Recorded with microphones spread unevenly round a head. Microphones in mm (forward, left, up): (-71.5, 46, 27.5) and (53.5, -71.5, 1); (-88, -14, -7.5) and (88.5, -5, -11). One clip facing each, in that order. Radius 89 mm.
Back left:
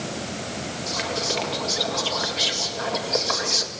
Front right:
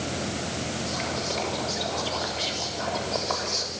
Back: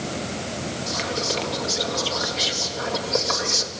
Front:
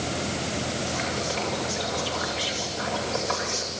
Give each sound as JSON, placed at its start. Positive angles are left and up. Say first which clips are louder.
{"t": 0.9, "sound": "whispering", "louder": "back left 2 dB, back 2 dB", "azimuth_deg": 140, "distance_m": 2.0}